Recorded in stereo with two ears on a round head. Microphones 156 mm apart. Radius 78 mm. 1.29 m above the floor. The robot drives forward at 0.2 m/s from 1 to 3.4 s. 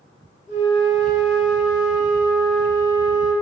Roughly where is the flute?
Left.